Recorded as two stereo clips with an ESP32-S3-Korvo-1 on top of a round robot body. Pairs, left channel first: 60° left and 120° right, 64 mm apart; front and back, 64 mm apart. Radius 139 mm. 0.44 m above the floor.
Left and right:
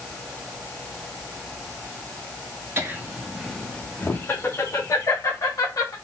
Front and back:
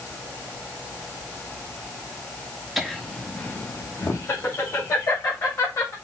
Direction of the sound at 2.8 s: 90° right.